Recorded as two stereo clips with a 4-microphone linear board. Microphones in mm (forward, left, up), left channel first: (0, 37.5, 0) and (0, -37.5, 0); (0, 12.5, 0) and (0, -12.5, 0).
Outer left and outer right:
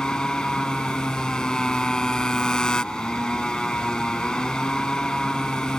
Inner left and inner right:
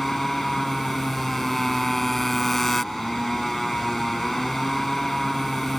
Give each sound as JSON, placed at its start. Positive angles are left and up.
{"t": 0.0, "sound": "a motorcycle", "side_deg": 10}